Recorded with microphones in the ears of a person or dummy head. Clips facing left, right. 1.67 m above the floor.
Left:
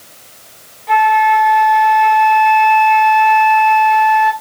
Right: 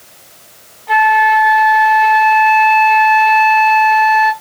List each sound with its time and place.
0.9 s a flute: 25° left (ahead or behind), 1.4 m